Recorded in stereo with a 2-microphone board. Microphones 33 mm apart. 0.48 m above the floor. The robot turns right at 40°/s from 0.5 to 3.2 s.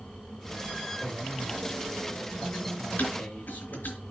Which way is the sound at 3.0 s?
65° left (ahead or behind).